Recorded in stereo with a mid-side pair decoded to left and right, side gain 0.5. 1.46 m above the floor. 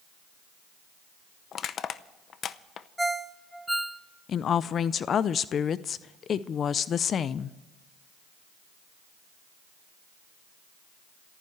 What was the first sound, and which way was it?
Crushing, 55° left.